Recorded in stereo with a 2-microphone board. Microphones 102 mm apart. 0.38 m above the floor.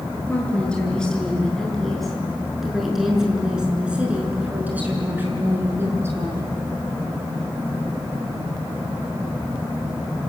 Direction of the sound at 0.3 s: 10° left (ahead or behind).